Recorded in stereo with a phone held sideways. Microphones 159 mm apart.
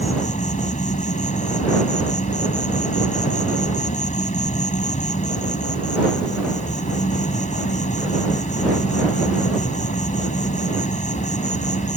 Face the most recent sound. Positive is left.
turn(degrees=50)  # may be behind; listen again after turning